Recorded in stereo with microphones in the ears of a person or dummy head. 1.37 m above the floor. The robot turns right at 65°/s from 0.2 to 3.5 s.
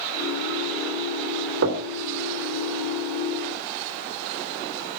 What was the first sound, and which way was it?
Knocking, 65° right (ahead or behind).